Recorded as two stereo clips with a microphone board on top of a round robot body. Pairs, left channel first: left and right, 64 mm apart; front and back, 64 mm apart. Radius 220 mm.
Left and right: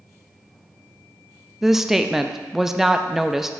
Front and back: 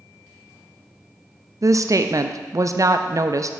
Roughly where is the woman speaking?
Behind.